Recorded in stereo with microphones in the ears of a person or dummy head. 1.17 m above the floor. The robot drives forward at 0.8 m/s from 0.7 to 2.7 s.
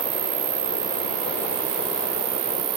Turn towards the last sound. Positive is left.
turn(degrees=-75)  # may be behind; listen again after turning